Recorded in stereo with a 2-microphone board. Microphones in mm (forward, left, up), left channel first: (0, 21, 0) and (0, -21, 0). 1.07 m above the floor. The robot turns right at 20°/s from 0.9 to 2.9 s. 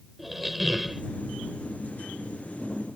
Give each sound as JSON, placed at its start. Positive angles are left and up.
{"t": 0.2, "sound": "a squeak", "side_deg": -5}